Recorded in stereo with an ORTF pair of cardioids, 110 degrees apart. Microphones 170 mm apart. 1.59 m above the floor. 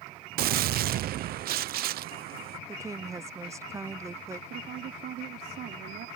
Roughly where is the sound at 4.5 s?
Right.